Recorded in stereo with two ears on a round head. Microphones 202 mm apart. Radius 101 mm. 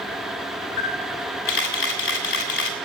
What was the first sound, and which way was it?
A camera shutter, 55° left (ahead or behind).